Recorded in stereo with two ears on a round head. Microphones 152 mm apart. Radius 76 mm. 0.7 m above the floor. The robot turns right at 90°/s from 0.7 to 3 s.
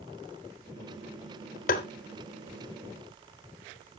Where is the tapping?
50° left (ahead or behind), 1.1 m; by 1.9 s 65° left (ahead or behind), 1.1 m.